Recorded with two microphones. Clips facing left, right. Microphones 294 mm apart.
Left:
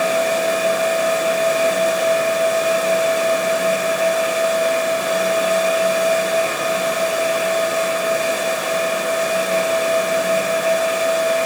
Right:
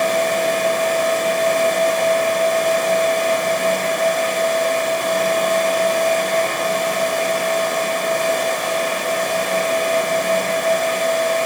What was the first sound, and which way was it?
Only background noise.